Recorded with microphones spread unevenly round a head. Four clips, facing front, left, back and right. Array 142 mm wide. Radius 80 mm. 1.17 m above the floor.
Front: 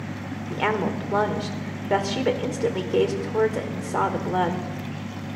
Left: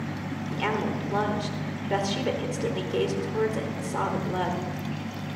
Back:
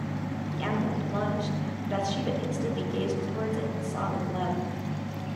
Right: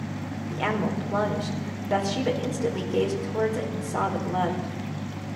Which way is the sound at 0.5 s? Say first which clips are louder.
Right 1 dB, front 6 dB; 5° right.